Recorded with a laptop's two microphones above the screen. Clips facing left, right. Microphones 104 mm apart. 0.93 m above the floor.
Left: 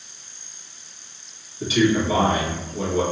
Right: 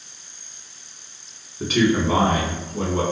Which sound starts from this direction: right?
A man speaking, at 1.6 s.